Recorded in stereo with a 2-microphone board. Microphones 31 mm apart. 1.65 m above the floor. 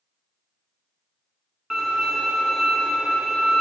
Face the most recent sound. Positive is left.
turn(degrees=-15)  # may be behind; listen again after turning